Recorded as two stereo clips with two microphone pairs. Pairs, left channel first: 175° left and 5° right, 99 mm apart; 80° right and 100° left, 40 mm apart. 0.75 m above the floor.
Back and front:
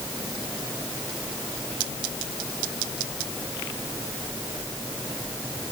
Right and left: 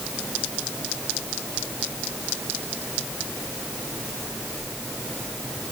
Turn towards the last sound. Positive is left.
No sound to turn to.